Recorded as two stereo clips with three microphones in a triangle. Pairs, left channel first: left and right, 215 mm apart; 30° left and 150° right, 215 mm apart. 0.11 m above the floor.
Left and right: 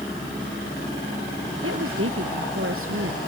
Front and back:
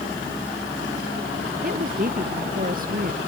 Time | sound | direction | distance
1.6 | a woman speaking | 100° right | ?